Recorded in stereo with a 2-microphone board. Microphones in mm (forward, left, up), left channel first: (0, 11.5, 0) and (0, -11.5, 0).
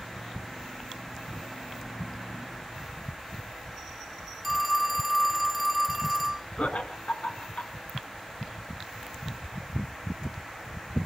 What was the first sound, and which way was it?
A phone ringing, 5° right (ahead or behind).